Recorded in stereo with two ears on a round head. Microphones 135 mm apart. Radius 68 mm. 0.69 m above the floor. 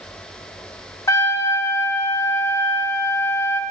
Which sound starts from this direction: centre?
A trumpet, at 1.1 s.